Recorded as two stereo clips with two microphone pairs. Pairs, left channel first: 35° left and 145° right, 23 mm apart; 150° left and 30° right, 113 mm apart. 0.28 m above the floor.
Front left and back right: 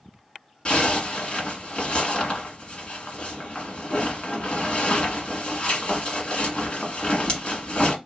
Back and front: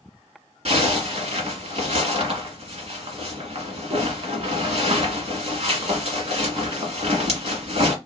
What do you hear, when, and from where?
0.7 s a zipper: 5° right, 1.3 m